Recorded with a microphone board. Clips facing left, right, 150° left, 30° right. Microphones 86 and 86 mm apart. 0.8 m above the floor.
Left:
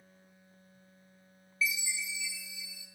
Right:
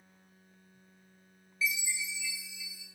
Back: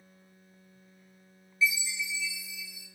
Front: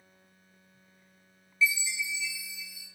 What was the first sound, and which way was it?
A chime, 150° right.